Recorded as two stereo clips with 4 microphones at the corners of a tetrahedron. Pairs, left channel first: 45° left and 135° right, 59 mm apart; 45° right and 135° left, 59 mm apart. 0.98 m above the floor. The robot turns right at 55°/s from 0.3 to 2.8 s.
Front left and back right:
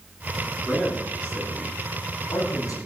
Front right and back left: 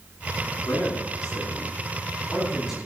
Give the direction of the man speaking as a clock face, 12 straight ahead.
2 o'clock.